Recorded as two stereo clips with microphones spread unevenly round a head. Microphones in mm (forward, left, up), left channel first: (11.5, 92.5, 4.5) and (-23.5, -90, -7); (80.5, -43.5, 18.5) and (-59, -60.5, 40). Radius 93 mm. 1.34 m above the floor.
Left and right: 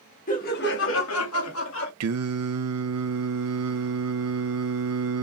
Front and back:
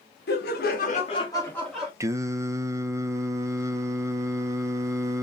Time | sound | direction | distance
0.3 | laughter | 30° left | 1.8 m
2.0 | singing | 105° right | 0.9 m